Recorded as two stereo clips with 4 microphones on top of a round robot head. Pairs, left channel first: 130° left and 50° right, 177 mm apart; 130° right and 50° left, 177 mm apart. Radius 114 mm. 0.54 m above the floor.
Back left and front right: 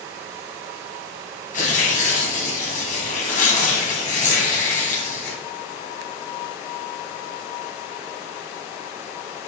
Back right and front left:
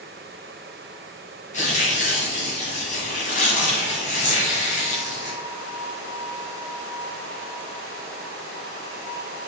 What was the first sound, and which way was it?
Tearing paper, straight behind.